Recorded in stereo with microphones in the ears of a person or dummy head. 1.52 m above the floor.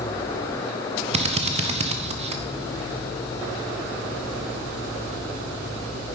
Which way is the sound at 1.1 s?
30° right (ahead or behind).